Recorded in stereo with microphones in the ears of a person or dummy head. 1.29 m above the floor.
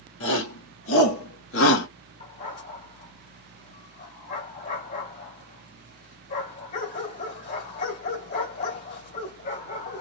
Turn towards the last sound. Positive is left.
turn(degrees=50)  # may be behind; listen again after turning